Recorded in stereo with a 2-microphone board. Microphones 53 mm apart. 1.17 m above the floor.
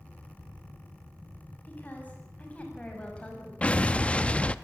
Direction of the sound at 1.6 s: 30° left (ahead or behind).